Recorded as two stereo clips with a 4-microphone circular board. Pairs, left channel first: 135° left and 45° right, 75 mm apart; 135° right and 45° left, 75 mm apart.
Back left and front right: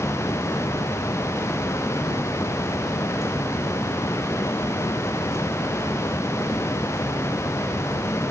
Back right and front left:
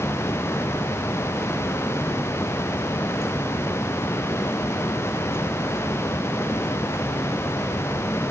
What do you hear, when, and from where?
Only background noise.